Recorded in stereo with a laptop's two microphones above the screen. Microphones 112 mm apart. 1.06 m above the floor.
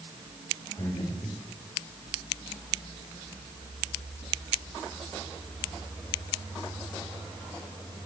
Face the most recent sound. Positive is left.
turn(degrees=45)  # may be behind; listen again after turning